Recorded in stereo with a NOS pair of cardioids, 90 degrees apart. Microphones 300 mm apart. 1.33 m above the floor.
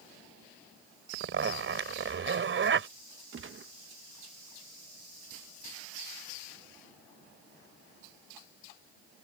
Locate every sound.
1.1 s a zipper: 40° right
3.3 s a gunshot: 40° right